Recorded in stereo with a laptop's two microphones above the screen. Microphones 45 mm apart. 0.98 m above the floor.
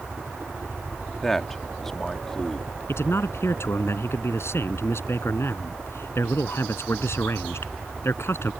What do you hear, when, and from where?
0.0 s a helicopter: 60° right (ahead or behind)
1.2 s a man speaking: 10° left (ahead or behind)
2.9 s a man speaking: 80° left